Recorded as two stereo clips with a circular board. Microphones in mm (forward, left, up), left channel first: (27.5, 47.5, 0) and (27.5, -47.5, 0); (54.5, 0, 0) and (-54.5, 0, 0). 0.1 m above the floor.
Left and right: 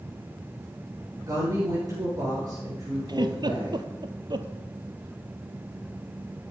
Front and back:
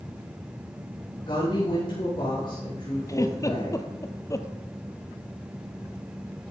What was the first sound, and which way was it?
A woman speaking, 40° right.